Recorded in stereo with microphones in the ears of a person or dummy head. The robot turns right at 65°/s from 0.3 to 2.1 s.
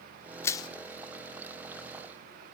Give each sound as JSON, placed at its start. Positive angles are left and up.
{"t": 0.4, "sound": "crushing", "side_deg": 10, "distance_m": 0.5}